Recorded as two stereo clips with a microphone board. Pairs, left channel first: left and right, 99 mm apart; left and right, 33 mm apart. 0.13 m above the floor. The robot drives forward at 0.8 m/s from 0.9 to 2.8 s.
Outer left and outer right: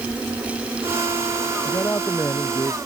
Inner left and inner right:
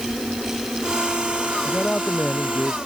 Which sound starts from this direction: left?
A man speaking, at 1.6 s.